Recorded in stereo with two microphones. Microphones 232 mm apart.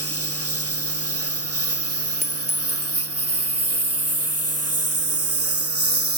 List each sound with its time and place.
0.0 s a lawn mower: 85° right; by 6.2 s 80° right
2.2 s a clink: 30° left (ahead or behind)